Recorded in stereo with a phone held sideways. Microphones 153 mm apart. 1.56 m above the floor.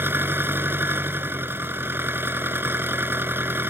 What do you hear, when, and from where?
0.0 s an engine running: 15° right (ahead or behind)